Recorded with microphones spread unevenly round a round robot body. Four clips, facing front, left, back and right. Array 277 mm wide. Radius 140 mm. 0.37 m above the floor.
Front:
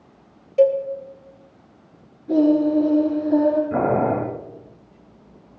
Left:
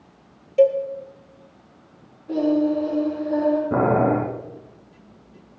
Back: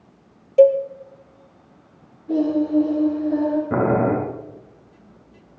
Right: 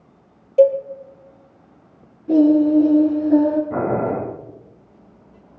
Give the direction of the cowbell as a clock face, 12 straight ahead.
5 o'clock.